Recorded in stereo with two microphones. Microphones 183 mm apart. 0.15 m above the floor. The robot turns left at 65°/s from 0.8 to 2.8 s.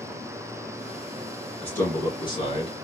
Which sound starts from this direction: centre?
A man speaking, at 1.6 s.